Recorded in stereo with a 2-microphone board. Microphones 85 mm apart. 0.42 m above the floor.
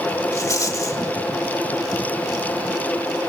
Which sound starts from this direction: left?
A rattle, at 0.3 s.